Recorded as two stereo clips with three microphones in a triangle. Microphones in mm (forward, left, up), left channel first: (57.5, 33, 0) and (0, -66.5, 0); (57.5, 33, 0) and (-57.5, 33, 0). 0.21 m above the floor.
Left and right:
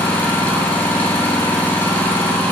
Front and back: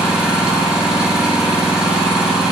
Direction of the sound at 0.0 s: 110° left.